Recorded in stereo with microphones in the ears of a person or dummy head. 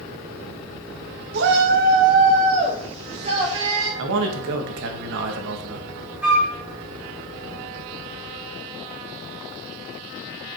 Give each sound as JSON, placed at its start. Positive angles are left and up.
{"t": 1.3, "sound": "a shout", "side_deg": -60, "distance_m": 1.6}
{"t": 4.0, "sound": "a man speaking", "side_deg": -70, "distance_m": 1.7}
{"t": 6.2, "sound": "a flute", "side_deg": -5, "distance_m": 2.5}